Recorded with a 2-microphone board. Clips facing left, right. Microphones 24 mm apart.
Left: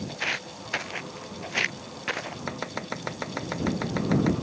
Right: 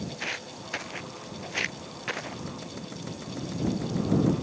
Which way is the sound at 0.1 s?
20° left (ahead or behind).